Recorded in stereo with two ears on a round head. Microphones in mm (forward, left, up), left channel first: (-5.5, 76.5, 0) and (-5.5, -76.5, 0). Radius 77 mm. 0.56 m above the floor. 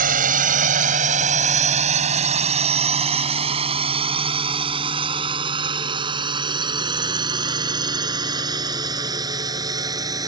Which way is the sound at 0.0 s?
55° right (ahead or behind).